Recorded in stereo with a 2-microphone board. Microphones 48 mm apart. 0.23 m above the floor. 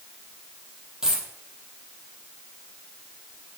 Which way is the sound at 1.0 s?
10° right (ahead or behind).